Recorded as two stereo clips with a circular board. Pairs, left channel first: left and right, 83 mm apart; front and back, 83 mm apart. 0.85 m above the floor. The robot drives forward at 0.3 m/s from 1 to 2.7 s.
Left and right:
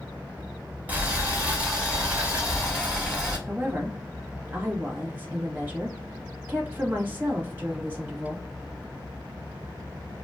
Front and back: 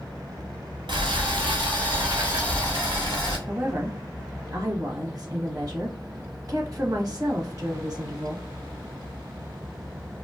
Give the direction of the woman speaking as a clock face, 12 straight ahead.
5 o'clock.